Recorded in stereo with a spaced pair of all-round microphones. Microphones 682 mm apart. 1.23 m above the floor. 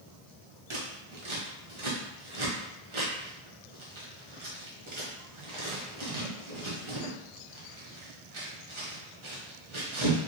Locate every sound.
0.7 s scissors: 45° right (ahead or behind), 0.8 m